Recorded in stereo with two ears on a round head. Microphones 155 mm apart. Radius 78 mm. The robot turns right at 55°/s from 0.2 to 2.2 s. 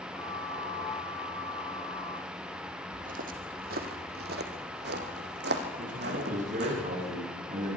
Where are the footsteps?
45° right (ahead or behind), 2 m; by 6.8 s 70° right (ahead or behind), 3.5 m.